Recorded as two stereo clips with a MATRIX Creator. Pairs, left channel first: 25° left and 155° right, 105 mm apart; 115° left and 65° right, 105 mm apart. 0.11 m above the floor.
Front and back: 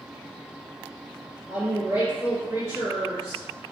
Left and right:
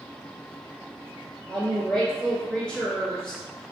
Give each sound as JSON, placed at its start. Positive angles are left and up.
{"t": 1.5, "sound": "a woman speaking", "azimuth_deg": -175, "distance_m": 1.7}